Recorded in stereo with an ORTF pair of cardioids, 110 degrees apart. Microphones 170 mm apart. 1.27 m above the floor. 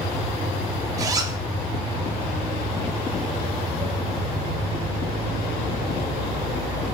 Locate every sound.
1.0 s a zipper: 20° right, 0.9 m